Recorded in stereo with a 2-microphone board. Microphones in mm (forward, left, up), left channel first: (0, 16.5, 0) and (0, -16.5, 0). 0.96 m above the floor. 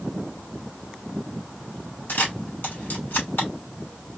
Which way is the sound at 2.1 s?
70° left (ahead or behind).